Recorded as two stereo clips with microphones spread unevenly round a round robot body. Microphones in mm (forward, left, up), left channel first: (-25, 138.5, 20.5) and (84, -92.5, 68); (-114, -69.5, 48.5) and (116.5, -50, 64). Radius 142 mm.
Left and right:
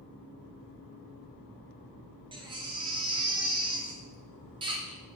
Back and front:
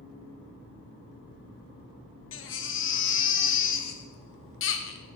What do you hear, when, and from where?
2.3 s a baby crying: 140° right, 0.9 m